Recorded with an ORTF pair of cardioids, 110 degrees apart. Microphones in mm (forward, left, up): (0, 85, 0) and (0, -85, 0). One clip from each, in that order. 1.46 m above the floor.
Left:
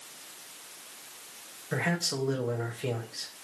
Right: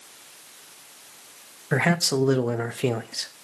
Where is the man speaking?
45° right, 0.6 m.